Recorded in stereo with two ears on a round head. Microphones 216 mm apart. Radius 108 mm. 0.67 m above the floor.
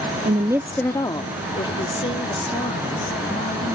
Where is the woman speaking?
25° right (ahead or behind); by 3.8 s 25° left (ahead or behind).